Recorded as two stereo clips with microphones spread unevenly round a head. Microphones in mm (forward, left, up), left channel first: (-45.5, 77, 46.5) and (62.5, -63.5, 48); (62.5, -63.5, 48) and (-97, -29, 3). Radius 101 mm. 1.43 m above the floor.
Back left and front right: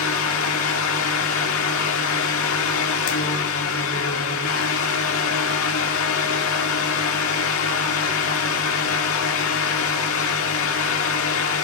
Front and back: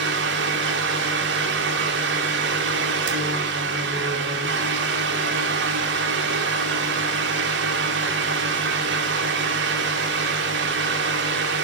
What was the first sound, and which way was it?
A fan, 135° left.